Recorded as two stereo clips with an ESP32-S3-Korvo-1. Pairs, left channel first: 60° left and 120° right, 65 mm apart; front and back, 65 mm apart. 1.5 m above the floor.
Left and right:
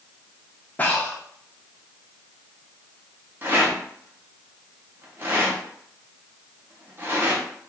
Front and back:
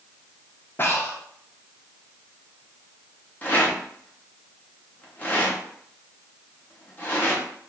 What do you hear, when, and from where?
0.8 s breathing: 15° left, 0.8 m
3.4 s a rattle: 60° right, 1.1 m